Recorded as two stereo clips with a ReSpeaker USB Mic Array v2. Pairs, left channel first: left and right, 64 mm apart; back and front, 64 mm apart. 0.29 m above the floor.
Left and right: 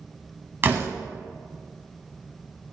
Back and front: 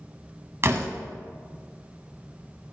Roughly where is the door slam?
Ahead right.